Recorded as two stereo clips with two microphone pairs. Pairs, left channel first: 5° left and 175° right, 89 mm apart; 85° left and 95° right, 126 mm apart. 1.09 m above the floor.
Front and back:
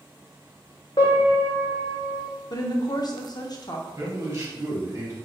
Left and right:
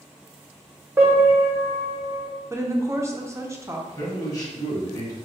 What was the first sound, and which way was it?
A piano, 25° right.